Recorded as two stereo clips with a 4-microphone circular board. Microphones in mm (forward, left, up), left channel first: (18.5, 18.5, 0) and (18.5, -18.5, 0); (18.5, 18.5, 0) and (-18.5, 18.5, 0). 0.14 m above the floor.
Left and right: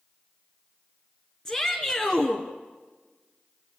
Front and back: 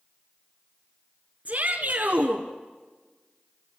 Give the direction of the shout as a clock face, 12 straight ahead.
7 o'clock.